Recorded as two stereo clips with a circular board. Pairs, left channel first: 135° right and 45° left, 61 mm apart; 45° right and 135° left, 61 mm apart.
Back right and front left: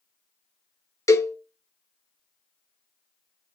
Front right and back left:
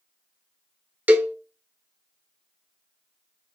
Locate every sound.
1.1 s a cowbell: 165° right, 0.7 m